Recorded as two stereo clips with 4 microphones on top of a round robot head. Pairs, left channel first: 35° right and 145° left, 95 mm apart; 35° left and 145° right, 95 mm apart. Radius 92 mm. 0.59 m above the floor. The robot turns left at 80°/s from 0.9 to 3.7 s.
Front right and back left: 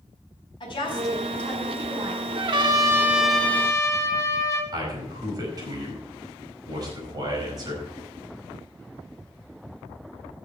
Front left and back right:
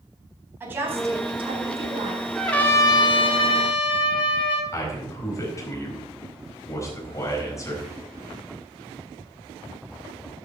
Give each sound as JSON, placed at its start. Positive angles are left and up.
{"t": 0.6, "sound": "a woman speaking", "azimuth_deg": -75, "distance_m": 4.5}
{"t": 2.4, "sound": "a trumpet", "azimuth_deg": 130, "distance_m": 1.9}
{"t": 4.7, "sound": "a man speaking", "azimuth_deg": 95, "distance_m": 4.5}